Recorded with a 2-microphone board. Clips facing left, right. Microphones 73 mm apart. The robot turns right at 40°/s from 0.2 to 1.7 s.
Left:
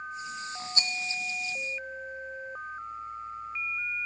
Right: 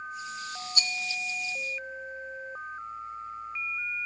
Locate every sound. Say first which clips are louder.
0.8 s a rattle: right 1 dB; 30° left (ahead or behind), 0.7 m; by 0.9 s 25° left (ahead or behind), 0.7 m